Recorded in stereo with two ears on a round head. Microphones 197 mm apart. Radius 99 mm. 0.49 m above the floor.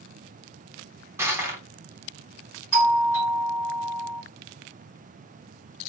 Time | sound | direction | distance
1.2 | crushing | 10° right (ahead or behind) | 0.7 m
2.7 | a doorbell | 10° left (ahead or behind) | 2 m